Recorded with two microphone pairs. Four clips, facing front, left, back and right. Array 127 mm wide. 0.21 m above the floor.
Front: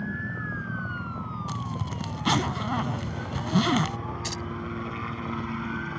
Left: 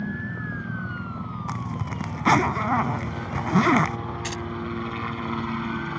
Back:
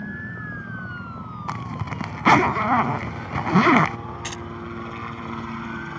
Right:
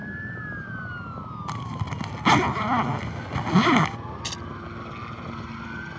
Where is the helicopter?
105° left.